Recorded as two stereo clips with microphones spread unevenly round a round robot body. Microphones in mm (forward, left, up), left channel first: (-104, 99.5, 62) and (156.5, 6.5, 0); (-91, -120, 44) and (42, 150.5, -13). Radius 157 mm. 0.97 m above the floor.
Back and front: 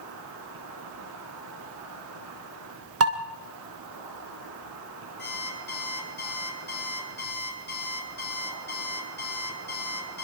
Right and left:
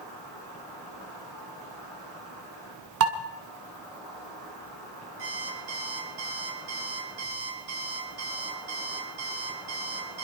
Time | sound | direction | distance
0.0 | an insect | 25° right | 8.5 m
3.0 | dishes clattering | 20° left | 2 m
5.2 | an alarm clock | 105° left | 7 m